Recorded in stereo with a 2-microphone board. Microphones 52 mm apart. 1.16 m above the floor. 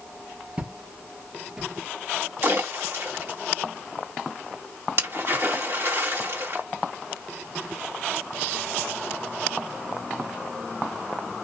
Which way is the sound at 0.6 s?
25° right (ahead or behind).